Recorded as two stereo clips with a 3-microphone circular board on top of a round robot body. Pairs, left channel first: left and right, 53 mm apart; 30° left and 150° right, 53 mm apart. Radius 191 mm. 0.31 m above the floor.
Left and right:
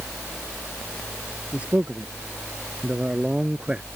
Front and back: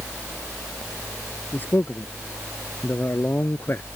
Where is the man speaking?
25° right; by 3.9 s 20° right.